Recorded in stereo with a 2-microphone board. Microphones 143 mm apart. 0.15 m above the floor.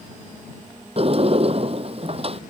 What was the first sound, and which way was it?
A sliding door, 45° right (ahead or behind).